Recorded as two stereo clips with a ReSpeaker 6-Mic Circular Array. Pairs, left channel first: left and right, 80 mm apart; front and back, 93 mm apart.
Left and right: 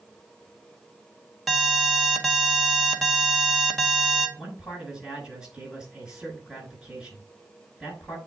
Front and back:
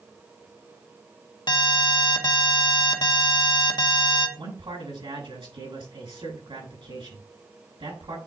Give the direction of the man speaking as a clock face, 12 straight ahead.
6 o'clock.